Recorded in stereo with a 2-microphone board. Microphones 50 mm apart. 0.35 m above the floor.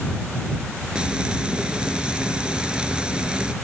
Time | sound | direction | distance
0.9 | frying | 20° right (ahead or behind) | ?